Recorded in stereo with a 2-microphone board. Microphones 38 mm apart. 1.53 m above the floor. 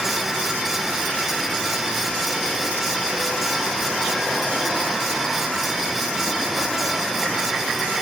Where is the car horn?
I don't hear a car horn.